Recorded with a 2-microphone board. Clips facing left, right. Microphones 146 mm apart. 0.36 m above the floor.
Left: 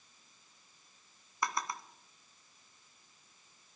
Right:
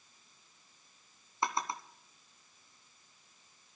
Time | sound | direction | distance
1.4 | a drawer | 25° right (ahead or behind) | 1.5 m